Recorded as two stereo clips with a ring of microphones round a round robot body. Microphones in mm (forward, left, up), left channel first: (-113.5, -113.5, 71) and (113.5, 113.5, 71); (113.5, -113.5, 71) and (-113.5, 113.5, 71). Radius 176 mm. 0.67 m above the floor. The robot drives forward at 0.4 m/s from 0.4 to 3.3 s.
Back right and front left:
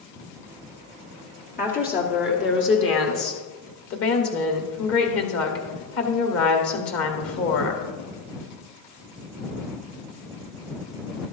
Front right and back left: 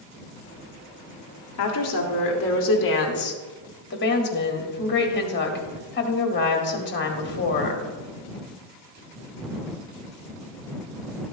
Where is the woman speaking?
75° right, 1.9 m; by 7.9 s 95° right, 1.9 m.